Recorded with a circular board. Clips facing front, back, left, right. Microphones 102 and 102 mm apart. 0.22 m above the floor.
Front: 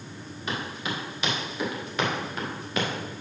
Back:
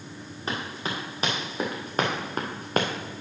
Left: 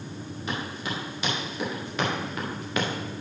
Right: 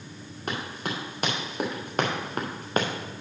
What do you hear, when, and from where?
0.5 s running footsteps: 125° right, 4.5 m; by 2.9 s 140° right, 1.5 m